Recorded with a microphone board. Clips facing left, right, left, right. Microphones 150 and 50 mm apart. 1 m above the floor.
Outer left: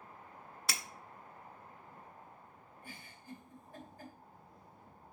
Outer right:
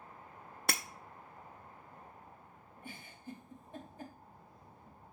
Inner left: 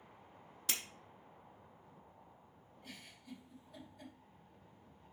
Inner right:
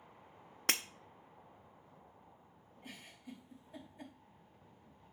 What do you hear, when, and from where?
0.7 s breaking glass: 55° right (ahead or behind), 0.5 m
2.8 s a giggle: 25° right (ahead or behind), 3 m